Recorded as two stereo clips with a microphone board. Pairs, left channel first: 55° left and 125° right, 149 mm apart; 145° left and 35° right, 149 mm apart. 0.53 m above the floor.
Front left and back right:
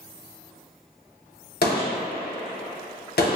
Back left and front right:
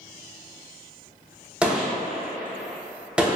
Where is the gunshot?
50° left, 0.6 m.